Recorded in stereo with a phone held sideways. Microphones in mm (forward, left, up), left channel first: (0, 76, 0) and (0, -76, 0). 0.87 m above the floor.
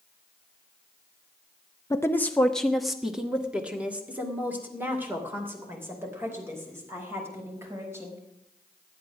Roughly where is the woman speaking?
Left.